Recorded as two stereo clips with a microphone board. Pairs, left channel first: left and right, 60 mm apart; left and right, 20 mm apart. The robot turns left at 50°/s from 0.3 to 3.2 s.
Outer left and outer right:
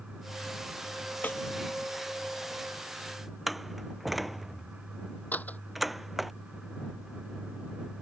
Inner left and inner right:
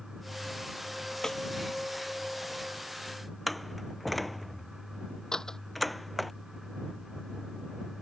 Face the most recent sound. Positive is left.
turn(degrees=25)  # may be behind; listen again after turning